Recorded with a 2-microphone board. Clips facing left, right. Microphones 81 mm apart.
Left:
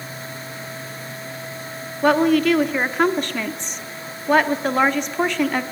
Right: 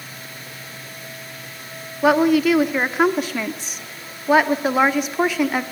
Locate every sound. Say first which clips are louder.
2.0 s a woman speaking: right 1 dB; 5° right (ahead or behind), 1.1 m